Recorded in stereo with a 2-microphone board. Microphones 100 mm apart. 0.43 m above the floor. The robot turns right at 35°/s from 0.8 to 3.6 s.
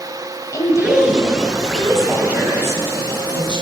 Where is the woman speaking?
145° left, 2 m; by 3.6 s 115° right, 2 m.